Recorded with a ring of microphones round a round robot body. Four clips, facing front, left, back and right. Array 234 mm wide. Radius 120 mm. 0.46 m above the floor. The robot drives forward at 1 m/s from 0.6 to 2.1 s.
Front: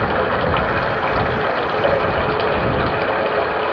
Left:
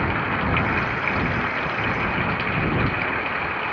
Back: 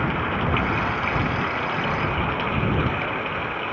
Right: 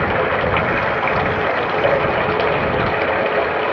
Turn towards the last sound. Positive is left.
turn(degrees=-55)